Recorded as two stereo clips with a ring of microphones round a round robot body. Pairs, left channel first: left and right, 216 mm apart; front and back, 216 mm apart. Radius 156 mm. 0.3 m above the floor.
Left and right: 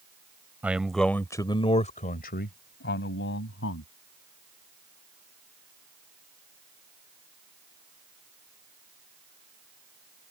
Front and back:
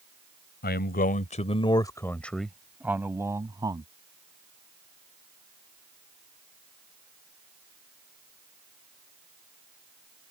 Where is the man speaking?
10° right; by 3.9 s 110° left.